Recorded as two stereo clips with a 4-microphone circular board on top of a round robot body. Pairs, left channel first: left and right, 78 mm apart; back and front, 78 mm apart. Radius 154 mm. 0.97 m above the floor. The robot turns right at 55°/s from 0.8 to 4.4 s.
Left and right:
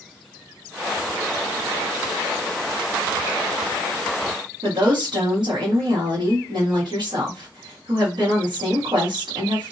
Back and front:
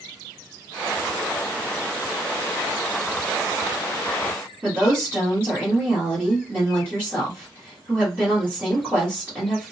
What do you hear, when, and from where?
4.6 s a woman speaking: 70° right, 1.3 m